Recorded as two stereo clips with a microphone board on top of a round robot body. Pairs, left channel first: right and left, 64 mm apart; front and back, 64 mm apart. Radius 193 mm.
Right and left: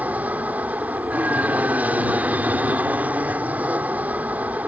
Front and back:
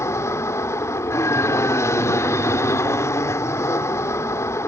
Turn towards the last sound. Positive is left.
turn(degrees=30)